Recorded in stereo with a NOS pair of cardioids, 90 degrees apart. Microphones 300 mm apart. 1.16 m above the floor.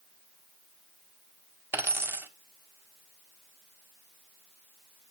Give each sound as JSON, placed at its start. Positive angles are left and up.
{"t": 1.7, "sound": "a dropped coin", "azimuth_deg": -10, "distance_m": 1.4}